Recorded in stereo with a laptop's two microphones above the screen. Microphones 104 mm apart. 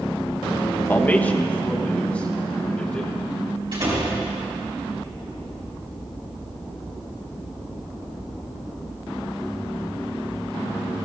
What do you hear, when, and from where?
0.9 s a man speaking: 20° left (ahead or behind), 0.6 m; by 3.1 s 10° left (ahead or behind), 2 m
3.7 s a door slam: 50° right (ahead or behind), 5 m